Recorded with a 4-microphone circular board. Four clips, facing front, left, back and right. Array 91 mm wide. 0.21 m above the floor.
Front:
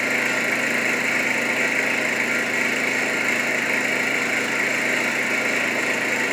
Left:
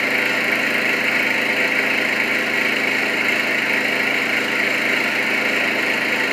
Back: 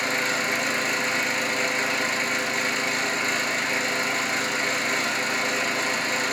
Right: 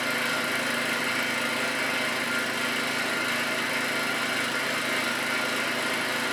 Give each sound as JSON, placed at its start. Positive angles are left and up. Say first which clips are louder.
{"t": 0.0, "sound": "an engine running", "louder": "left 8 dB, front 3 dB", "azimuth_deg": 60, "distance_m": 1.6}